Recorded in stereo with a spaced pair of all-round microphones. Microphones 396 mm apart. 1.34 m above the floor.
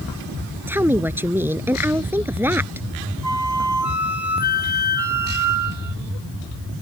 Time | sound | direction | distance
0.7 | a woman speaking | 5° right (ahead or behind) | ?
3.2 | a flute | 45° right (ahead or behind) | ?